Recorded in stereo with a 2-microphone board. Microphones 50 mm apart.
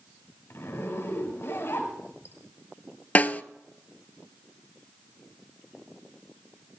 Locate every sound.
0.5 s a zipper: 50° left (ahead or behind), 4.5 m
3.1 s a snare drum: 30° left (ahead or behind), 0.5 m